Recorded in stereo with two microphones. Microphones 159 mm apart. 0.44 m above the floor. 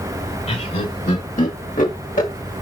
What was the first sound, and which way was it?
Laughter, 50° left (ahead or behind).